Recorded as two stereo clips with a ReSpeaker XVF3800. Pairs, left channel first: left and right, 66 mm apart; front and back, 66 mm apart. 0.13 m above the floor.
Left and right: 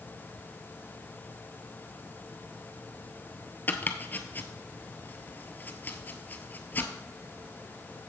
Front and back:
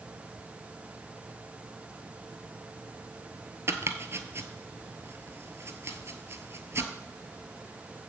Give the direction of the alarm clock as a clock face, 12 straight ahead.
No alarm clock in this recording.